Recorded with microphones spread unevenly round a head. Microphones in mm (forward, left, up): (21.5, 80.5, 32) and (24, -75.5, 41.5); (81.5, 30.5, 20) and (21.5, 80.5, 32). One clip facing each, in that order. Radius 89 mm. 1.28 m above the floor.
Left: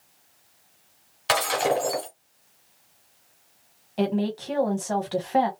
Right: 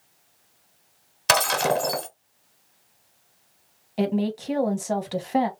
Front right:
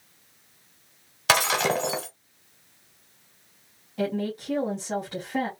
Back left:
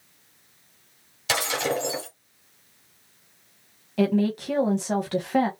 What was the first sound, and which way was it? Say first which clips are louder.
Breaking glass: right 1 dB, front right 3 dB; 85° right.